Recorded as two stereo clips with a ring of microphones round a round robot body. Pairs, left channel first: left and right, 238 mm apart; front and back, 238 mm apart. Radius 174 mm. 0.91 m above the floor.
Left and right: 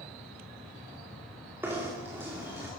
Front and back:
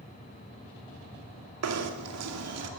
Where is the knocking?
175° right, 2.5 m.